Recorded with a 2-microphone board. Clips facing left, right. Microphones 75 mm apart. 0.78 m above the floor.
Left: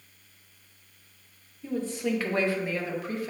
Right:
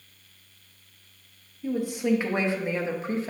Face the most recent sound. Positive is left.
turn(degrees=-30)  # may be behind; listen again after turning